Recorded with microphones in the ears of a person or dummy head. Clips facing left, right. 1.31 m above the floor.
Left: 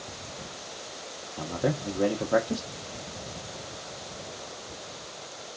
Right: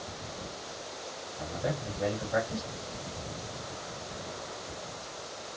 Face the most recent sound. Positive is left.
turn(degrees=60)  # may be behind; listen again after turning